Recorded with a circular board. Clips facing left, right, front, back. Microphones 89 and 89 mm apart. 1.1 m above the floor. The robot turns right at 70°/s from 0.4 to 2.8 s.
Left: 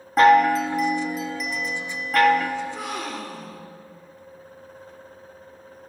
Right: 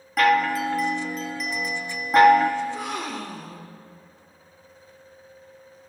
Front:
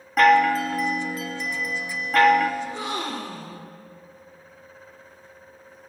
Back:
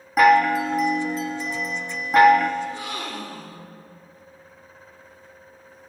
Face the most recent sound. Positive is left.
turn(degrees=0)